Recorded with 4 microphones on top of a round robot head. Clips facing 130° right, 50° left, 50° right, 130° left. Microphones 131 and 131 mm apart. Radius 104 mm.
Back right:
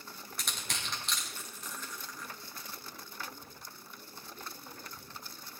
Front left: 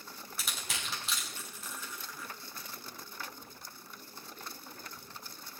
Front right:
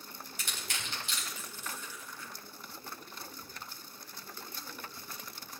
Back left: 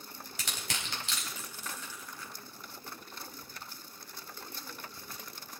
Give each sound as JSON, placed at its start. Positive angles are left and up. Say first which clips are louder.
{"t": 0.4, "sound": "crushing", "louder": "even, back left 2 dB", "azimuth_deg": 135, "distance_m": 4.0}